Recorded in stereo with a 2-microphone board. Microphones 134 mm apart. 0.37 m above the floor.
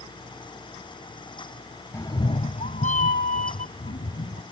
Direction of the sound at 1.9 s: 20° left (ahead or behind).